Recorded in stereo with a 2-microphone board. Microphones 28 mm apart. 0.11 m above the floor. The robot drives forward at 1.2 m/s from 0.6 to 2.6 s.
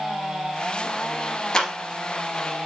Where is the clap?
25° left (ahead or behind), 2 m.